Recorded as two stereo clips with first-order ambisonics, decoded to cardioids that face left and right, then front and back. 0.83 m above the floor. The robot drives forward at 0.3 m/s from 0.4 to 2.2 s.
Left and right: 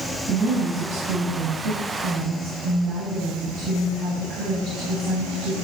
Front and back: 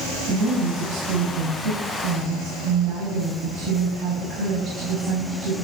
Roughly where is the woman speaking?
Behind right.